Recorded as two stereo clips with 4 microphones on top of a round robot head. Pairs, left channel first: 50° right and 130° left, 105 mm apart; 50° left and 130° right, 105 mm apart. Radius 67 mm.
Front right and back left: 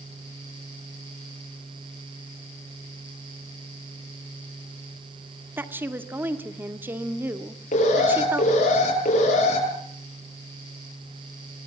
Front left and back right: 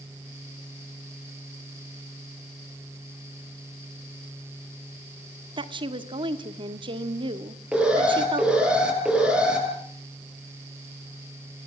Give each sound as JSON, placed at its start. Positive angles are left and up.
{"t": 5.6, "sound": "a woman speaking", "azimuth_deg": -160, "distance_m": 1.8}
{"t": 7.7, "sound": "an alarm", "azimuth_deg": -50, "distance_m": 9.5}